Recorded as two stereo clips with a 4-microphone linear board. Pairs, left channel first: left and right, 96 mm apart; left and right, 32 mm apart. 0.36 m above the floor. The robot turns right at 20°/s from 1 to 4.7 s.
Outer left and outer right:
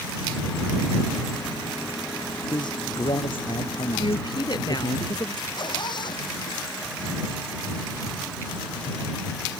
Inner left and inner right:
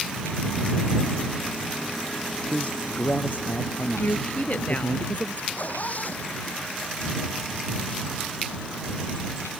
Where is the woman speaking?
60° left (ahead or behind); by 5.5 s 45° left (ahead or behind).